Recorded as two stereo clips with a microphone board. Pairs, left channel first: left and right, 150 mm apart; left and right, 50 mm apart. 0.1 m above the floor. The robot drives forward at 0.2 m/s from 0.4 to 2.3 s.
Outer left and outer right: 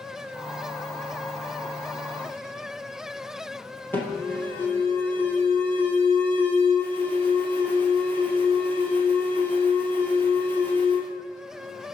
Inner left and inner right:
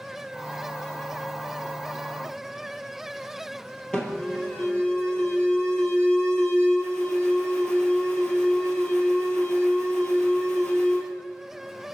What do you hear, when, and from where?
3.9 s an alarm: 15° left (ahead or behind), 1.8 m